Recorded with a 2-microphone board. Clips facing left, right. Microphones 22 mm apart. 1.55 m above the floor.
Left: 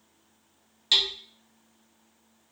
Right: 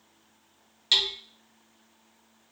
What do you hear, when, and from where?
0.9 s hammering: 5° right (ahead or behind), 0.7 m